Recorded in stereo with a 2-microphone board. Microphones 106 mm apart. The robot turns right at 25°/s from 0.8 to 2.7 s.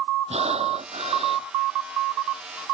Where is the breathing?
80° right; by 1.5 s 65° right (ahead or behind).